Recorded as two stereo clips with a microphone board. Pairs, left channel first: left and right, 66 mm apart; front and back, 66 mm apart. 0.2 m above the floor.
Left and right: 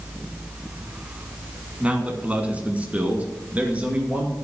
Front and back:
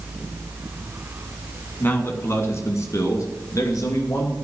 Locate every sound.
1.8 s a man speaking: 30° right, 1.4 m; by 4.3 s 25° right, 3 m